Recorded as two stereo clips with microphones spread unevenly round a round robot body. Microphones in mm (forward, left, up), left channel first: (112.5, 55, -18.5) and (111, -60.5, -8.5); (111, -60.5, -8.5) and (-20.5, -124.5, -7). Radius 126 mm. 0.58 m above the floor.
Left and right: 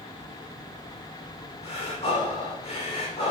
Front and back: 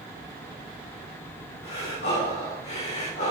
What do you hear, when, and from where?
1.6 s breathing: 65° left, 6 m